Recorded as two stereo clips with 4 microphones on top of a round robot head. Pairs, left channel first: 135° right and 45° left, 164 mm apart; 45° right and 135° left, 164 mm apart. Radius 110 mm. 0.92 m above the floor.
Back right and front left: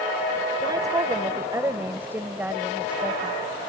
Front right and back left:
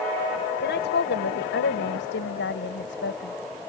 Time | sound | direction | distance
0.6 | a woman speaking | 25° right | ?